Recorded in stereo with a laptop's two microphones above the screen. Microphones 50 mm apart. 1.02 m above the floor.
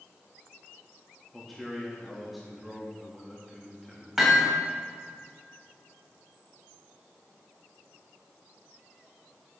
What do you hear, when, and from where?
1.3 s a man speaking: centre (ahead or behind), 2 m
4.2 s hammering: 5° right (ahead or behind), 3 m